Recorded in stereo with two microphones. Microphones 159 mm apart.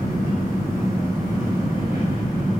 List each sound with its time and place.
0.0 s an engine running: 90° right, 2.5 m